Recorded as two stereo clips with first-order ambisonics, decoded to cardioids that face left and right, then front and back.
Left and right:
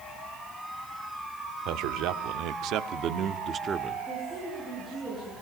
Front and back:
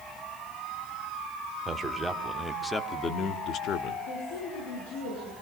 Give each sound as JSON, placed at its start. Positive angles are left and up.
{"t": 1.6, "sound": "a man speaking", "azimuth_deg": -110, "distance_m": 1.7}
{"t": 4.1, "sound": "a woman speaking", "azimuth_deg": 0, "distance_m": 9.0}